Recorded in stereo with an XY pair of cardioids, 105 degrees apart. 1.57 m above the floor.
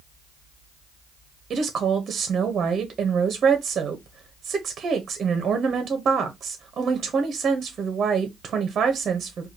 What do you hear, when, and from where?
1.5 s a woman speaking: 45° right, 0.8 m